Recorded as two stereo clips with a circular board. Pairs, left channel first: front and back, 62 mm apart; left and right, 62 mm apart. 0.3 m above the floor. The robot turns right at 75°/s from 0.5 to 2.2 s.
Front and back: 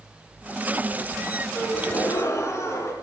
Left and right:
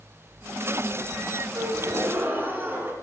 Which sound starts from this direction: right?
A gasp, at 1.5 s.